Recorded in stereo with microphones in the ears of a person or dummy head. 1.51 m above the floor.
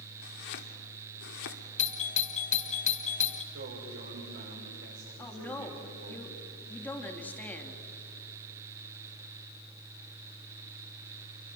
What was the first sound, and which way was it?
Chopping, 60° left (ahead or behind).